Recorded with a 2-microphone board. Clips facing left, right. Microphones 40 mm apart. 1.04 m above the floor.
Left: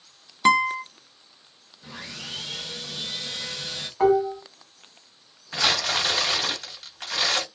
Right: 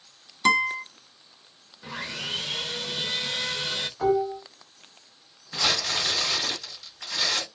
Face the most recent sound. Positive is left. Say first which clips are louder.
# left 3 dB
turn(degrees=50)  # may be behind; listen again after turning